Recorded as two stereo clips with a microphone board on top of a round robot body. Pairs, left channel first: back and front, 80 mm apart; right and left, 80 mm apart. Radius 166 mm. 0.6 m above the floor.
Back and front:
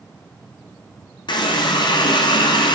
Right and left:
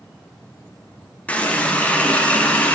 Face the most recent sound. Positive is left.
turn(degrees=-165)